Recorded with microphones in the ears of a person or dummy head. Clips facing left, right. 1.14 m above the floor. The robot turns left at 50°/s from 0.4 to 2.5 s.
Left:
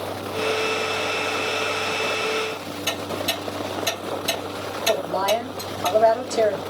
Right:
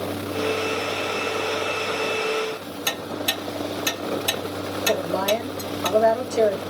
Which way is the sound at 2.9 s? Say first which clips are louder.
Left 2 dB; 70° right (ahead or behind).